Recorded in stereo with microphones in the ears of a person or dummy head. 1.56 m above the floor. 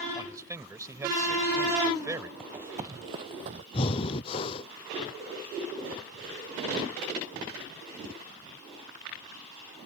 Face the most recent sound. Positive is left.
turn(degrees=30)  # may be behind; listen again after turning